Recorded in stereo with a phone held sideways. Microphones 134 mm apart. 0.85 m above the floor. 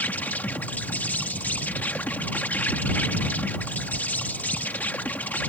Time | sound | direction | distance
0.0 | an insect | 10° left (ahead or behind) | ?